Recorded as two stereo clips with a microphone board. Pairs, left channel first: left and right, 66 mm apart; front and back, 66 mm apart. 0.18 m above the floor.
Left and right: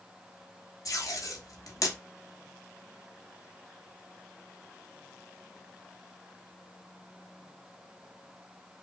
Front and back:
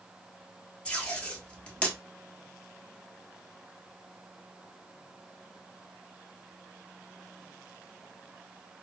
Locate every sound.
0.8 s tape being pulled: 65° left, 0.8 m